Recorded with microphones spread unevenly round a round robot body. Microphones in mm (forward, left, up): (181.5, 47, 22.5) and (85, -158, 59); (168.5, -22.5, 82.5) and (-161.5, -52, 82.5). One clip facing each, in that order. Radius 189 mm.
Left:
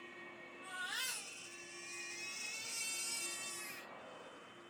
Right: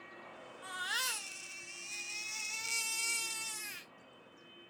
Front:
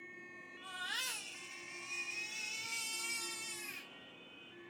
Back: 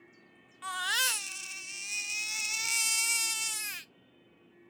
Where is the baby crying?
145° right, 0.5 m.